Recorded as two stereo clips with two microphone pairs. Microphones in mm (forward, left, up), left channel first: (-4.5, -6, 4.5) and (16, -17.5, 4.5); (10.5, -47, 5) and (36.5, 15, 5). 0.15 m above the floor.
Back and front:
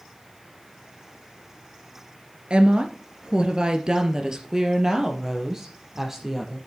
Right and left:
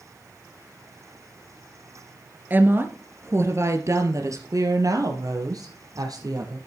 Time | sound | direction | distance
2.5 | a woman speaking | 5° left | 2 m